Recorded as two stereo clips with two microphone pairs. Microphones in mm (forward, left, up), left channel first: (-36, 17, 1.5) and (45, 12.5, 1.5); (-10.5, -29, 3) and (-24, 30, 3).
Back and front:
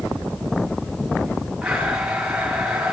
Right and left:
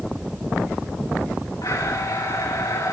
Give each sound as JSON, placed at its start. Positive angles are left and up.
{"t": 1.6, "sound": "a blender", "azimuth_deg": -85, "distance_m": 6.0}